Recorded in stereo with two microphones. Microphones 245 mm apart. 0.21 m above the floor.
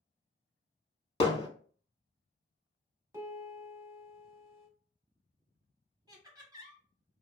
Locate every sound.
1.2 s hammering: 25° left (ahead or behind), 0.6 m
3.1 s a piano: 10° right (ahead or behind), 1.2 m
6.1 s laughter: 15° right (ahead or behind), 1.2 m